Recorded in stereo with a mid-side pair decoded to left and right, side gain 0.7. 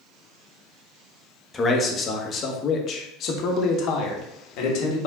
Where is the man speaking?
25° left, 1.8 m; by 5.1 s 70° left, 2.5 m.